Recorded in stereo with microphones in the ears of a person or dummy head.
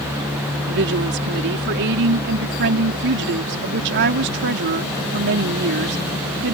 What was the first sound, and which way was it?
A woman speaking, 60° right (ahead or behind).